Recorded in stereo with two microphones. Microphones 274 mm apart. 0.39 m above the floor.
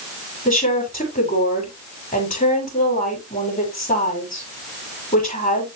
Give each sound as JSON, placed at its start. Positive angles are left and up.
{"t": 0.5, "sound": "a woman speaking", "side_deg": 30, "distance_m": 7.5}